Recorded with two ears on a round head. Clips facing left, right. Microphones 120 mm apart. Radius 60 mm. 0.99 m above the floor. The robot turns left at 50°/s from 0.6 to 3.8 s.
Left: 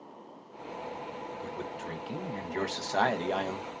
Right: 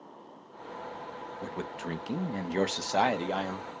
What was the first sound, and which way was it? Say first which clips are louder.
A man speaking: right 4 dB; 85° right.